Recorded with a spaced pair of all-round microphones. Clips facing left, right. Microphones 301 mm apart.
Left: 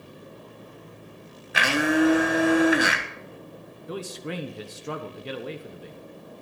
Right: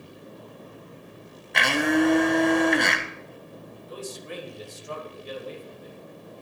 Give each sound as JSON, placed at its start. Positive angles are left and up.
{"t": 1.5, "sound": "a blender", "side_deg": 5, "distance_m": 1.3}
{"t": 3.9, "sound": "a man speaking", "side_deg": 75, "distance_m": 1.3}